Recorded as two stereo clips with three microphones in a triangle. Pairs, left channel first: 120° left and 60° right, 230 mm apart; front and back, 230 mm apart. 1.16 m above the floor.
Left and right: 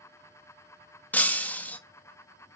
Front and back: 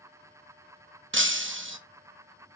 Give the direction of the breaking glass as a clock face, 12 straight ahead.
5 o'clock.